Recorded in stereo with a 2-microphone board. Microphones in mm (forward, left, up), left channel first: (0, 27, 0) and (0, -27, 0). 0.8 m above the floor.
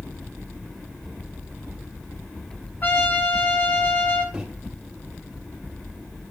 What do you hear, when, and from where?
2.8 s a trumpet: 35° left (ahead or behind), 1.9 m
4.3 s a microwave: 15° right (ahead or behind), 2.5 m